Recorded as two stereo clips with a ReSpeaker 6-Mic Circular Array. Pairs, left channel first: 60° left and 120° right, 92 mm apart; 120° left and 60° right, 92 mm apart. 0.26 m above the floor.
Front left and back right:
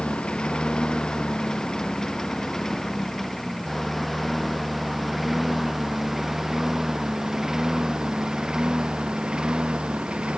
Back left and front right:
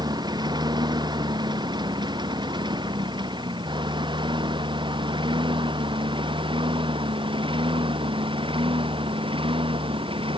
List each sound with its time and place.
0.0 s a lawn mower: 20° right; by 10.4 s 40° right